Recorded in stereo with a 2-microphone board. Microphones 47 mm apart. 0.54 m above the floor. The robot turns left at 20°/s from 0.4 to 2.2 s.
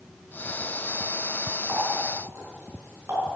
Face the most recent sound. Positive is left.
turn(degrees=-85)